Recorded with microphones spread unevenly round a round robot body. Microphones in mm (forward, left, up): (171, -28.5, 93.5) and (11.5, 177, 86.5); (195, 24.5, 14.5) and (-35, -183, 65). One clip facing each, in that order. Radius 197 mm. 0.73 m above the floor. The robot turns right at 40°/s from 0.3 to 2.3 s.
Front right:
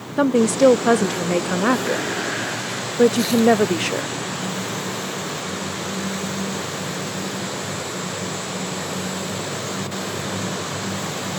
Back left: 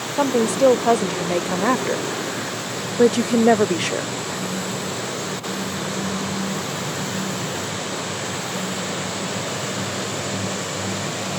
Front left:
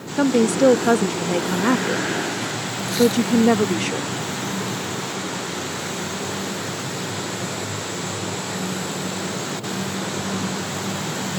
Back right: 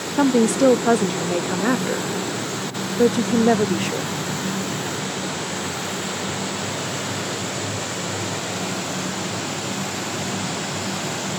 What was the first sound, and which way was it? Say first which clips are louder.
A woman speaking: front right 2 dB, even; 45° right.